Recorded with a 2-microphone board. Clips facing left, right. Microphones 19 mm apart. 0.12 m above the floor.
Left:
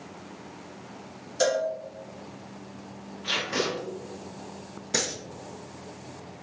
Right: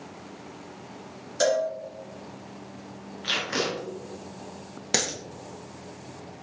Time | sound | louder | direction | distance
1.4 | a cowbell | right 1 dB | 10° right (ahead or behind) | 1.3 m
3.2 | tape being pulled | right 1 dB | 25° right (ahead or behind) | 1.5 m
4.9 | a dropped coin | right 2 dB | 50° right (ahead or behind) | 1.6 m